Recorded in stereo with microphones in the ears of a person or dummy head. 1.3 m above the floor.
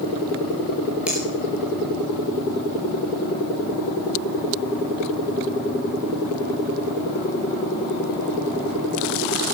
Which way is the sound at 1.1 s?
5° right (ahead or behind).